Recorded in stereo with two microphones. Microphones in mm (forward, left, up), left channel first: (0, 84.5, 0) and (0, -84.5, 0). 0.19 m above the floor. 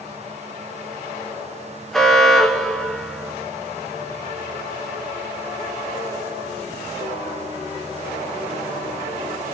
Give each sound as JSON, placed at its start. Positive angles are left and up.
{"t": 1.9, "sound": "an alarm", "side_deg": 0, "distance_m": 3.5}